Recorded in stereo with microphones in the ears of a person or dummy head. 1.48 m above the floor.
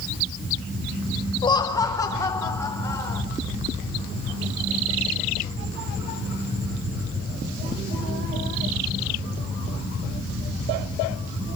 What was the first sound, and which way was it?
Laughter, 25° left (ahead or behind).